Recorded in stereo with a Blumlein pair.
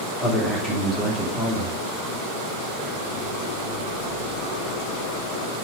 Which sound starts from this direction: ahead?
A man speaking, at 0.2 s.